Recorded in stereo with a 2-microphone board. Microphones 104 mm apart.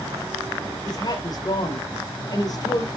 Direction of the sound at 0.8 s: 40° left (ahead or behind).